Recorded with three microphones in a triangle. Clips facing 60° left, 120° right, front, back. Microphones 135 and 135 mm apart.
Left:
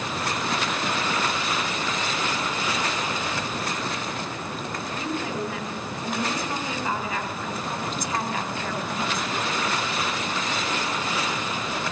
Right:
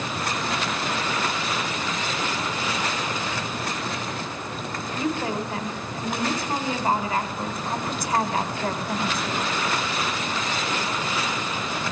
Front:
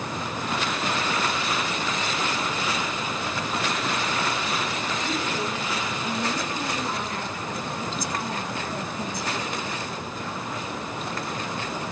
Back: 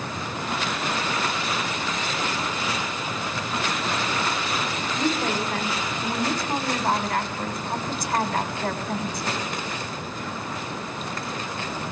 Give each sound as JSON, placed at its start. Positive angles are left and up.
{"t": 5.0, "sound": "a woman speaking", "azimuth_deg": -175, "distance_m": 4.0}